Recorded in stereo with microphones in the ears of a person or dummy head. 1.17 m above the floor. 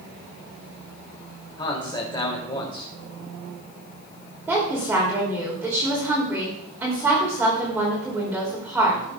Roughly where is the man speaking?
Left.